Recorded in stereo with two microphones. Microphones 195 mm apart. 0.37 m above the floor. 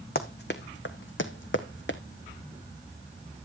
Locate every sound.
0.1 s running footsteps: 50° left (ahead or behind), 1.5 m; by 2.0 s 70° left (ahead or behind), 1.5 m